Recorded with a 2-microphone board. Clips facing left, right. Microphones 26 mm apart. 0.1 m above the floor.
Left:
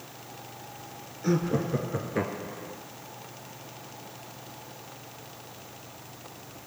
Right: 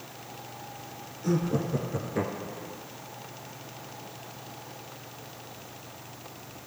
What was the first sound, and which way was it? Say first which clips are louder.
Laughter: left 1 dB; 30° left (ahead or behind).